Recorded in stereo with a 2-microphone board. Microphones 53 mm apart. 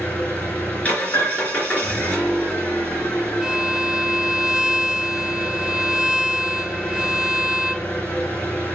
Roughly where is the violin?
Centre.